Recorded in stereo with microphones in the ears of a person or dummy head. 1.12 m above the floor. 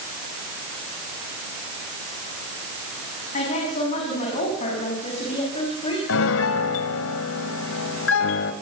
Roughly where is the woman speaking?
Left.